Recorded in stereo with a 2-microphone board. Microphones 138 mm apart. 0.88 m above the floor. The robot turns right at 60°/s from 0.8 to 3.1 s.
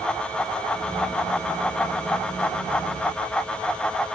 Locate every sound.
Only background noise.